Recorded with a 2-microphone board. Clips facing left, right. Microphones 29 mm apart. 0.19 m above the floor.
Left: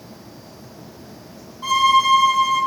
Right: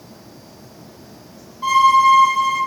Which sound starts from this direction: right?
A violin, at 1.6 s.